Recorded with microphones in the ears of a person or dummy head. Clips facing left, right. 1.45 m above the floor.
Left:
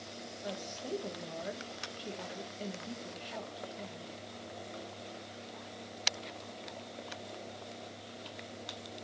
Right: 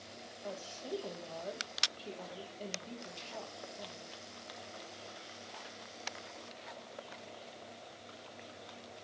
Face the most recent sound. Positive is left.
turn(degrees=20)  # may be behind; listen again after turning